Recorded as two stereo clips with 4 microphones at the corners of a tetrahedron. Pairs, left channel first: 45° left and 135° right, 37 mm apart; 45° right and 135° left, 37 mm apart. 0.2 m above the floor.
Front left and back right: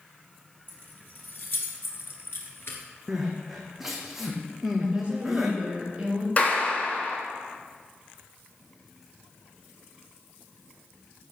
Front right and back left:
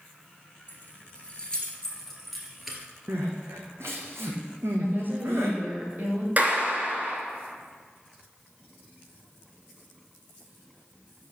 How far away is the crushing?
No crushing in this recording.